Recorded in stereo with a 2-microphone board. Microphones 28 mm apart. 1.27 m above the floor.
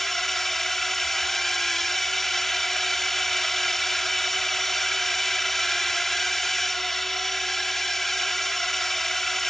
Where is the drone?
10° left (ahead or behind).